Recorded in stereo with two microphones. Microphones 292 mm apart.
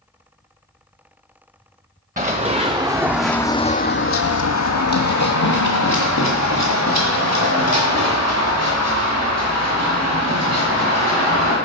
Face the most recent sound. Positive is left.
turn(degrees=60)  # may be behind; listen again after turning